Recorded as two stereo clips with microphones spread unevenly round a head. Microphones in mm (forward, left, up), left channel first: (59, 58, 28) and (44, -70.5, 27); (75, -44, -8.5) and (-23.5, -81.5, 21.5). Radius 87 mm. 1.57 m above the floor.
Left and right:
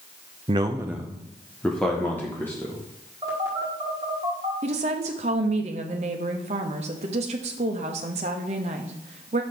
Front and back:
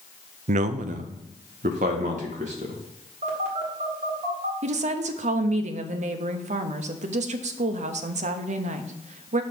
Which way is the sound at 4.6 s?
145° right.